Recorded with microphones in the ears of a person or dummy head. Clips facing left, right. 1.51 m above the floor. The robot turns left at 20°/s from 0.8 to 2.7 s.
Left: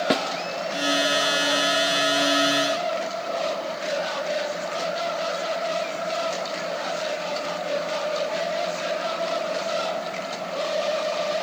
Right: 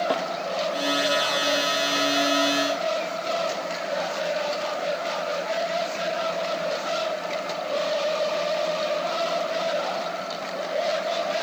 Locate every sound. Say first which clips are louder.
0.1 s a snare drum: left 2 dB; 30° left (ahead or behind), 0.6 m